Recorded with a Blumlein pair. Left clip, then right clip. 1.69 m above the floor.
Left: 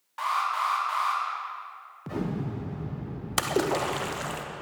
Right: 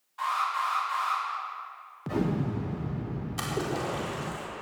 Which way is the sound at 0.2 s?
60° left.